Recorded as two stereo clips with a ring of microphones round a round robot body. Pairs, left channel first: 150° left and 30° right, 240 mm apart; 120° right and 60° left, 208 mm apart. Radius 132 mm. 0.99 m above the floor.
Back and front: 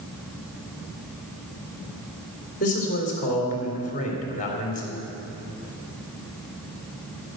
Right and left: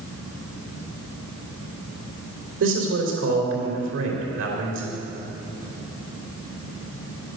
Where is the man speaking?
90° left, 3 m.